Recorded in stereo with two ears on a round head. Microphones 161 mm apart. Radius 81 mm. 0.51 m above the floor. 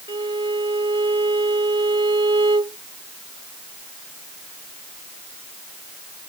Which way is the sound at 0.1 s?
30° right (ahead or behind).